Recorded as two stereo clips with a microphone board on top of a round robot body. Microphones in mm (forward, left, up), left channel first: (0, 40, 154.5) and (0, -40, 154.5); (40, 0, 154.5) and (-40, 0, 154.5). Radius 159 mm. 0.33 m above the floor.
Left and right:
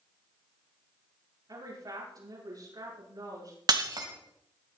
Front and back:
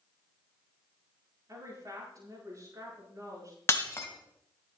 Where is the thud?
No thud in this recording.